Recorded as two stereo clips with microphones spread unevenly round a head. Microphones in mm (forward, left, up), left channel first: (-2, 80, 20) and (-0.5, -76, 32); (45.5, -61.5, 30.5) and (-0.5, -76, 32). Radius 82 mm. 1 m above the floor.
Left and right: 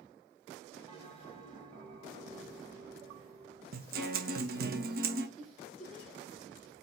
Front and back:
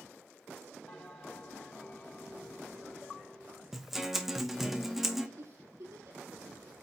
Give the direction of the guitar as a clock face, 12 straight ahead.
3 o'clock.